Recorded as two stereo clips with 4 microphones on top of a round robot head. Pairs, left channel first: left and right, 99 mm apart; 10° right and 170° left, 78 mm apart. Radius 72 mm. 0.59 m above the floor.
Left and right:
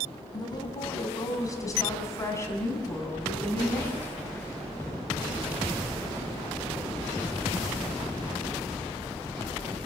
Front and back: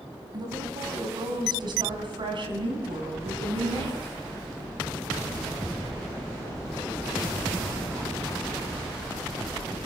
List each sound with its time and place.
0.3 s a woman speaking: 135° left, 5 m; by 4.1 s 160° left, 7 m